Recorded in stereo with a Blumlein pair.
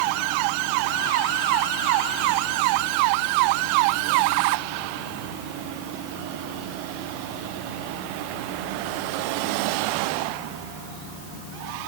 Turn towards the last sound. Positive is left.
No sound to turn to.